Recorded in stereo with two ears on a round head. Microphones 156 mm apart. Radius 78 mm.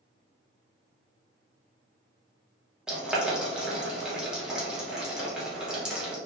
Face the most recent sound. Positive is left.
turn(degrees=-5)  # may be behind; listen again after turning